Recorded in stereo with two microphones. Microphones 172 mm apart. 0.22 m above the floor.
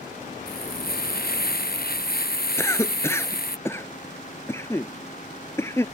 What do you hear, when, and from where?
0.5 s frying: 60° left (ahead or behind)
2.6 s a cough: 15° left (ahead or behind)